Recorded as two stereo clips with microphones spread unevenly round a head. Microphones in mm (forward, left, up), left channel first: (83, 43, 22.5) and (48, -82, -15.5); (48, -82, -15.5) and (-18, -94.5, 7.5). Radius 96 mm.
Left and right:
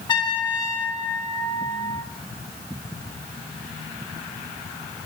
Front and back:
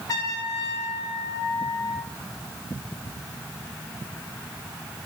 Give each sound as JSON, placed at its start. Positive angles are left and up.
{"t": 0.1, "sound": "a trumpet", "azimuth_deg": 70, "distance_m": 1.2}